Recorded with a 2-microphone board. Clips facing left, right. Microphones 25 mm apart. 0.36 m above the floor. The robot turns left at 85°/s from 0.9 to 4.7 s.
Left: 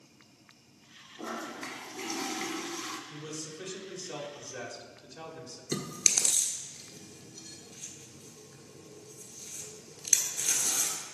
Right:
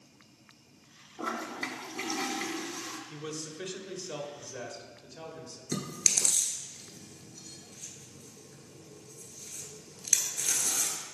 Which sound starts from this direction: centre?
Chewing, at 5.7 s.